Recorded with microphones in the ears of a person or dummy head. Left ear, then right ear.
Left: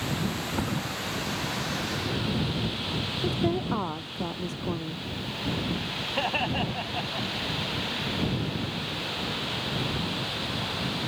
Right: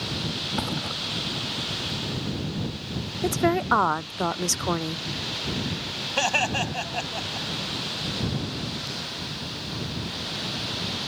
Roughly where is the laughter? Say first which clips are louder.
Right 5 dB; right.